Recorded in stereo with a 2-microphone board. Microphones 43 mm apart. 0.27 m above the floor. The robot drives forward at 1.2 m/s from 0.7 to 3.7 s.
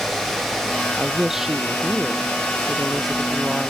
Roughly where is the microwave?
No microwave in this recording.